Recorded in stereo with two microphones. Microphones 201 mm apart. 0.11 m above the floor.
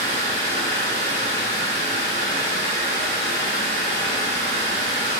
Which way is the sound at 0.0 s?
45° left (ahead or behind).